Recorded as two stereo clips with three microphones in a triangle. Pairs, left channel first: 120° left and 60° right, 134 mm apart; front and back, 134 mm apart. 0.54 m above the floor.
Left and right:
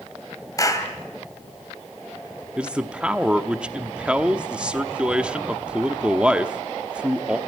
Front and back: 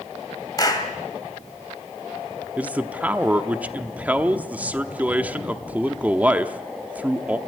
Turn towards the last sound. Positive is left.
turn(degrees=-125)